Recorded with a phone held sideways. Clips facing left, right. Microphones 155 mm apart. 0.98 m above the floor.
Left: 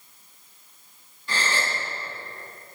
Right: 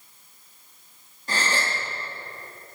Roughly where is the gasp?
Right.